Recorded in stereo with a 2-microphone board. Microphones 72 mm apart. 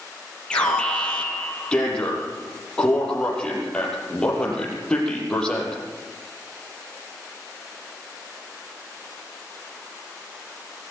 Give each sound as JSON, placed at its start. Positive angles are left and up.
{"t": 0.5, "sound": "an alarm", "side_deg": 10, "distance_m": 7.5}